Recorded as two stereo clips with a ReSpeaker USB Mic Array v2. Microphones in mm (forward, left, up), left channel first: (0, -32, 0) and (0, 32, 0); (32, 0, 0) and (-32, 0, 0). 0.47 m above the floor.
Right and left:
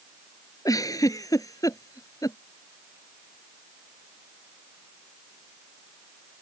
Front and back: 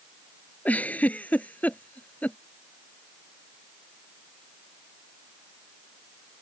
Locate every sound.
0.7 s a giggle: 65° right